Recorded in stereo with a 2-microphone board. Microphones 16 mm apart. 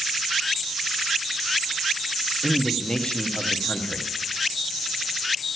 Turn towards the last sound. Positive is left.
turn(degrees=50)  # may be behind; listen again after turning